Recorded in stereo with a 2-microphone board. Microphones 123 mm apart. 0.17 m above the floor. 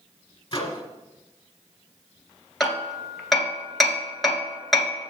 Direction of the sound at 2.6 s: Centre (ahead or behind).